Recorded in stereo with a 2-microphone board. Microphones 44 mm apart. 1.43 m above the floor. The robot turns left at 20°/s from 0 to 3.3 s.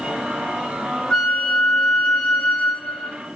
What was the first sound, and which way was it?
A flute, 145° left.